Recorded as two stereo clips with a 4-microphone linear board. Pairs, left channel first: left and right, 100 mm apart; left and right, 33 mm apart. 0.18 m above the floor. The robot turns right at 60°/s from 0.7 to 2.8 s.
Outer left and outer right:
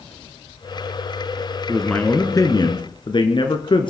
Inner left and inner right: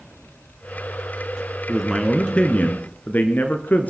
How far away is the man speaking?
About 2 m.